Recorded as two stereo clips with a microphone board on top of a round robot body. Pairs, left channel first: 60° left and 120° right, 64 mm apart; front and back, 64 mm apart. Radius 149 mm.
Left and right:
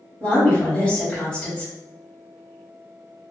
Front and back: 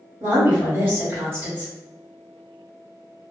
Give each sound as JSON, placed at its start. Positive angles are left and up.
{"t": 0.2, "sound": "a woman speaking", "azimuth_deg": 125, "distance_m": 1.5}